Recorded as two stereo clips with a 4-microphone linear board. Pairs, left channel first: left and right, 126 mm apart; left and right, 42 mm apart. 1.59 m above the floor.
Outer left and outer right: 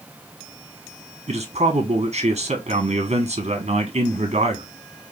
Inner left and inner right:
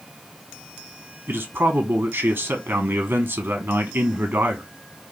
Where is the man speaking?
70° right (ahead or behind), 1.0 m.